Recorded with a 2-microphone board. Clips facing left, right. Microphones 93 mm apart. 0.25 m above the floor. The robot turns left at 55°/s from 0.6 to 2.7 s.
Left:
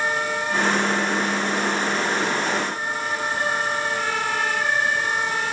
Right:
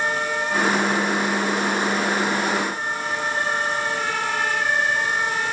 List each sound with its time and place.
Only background noise.